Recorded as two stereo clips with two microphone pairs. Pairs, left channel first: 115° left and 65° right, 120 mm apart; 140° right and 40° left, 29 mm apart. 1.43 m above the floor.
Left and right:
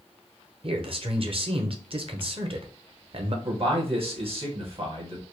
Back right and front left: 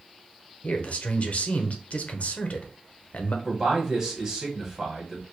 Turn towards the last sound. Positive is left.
turn(degrees=-30)